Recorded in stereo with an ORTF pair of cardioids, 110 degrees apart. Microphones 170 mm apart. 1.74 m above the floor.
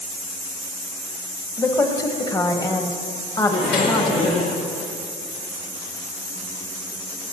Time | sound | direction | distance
1.6 | a woman speaking | 20° left | 1.2 m
3.5 | a microwave | 60° left | 3.5 m